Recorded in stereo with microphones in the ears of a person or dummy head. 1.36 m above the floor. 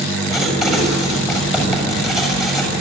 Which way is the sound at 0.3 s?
5° right (ahead or behind).